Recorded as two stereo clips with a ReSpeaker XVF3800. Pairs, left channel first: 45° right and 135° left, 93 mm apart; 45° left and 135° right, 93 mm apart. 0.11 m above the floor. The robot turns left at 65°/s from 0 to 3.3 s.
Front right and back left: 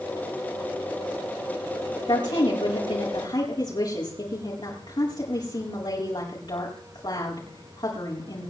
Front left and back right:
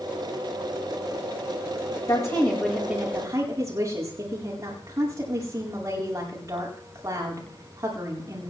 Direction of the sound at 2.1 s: Straight ahead.